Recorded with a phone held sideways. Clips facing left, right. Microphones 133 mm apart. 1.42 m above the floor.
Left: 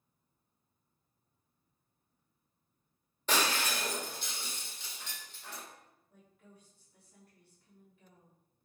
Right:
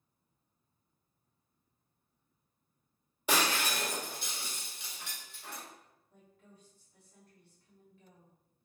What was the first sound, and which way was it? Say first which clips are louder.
Breaking glass: right 1 dB; 10° right (ahead or behind).